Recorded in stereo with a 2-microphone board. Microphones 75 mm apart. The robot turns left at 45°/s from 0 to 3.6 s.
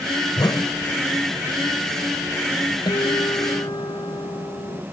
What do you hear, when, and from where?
0.4 s a whoosh: 60° left (ahead or behind); by 0.8 s 80° left
2.9 s a guitar: 110° left; by 4.8 s 75° left